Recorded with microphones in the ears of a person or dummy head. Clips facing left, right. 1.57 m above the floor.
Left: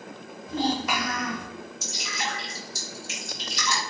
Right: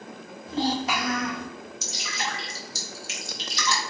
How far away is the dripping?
About 1.3 m.